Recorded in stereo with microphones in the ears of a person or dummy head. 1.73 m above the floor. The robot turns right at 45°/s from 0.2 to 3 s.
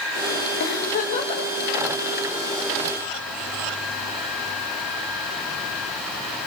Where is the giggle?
120° left, 3 m; by 1.4 s 155° left, 3 m.